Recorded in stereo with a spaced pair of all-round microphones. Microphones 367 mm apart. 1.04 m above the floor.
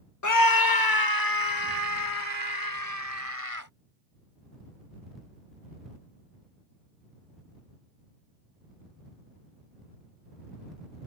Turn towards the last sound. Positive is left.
turn(degrees=65)  # may be behind; listen again after turning